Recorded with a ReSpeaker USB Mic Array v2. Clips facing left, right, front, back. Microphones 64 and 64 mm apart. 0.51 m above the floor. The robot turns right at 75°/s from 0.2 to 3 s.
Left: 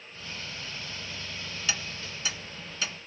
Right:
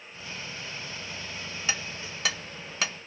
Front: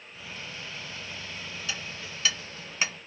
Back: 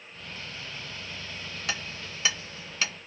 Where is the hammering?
155° right, 0.6 m; by 2.9 s 60° right, 0.6 m.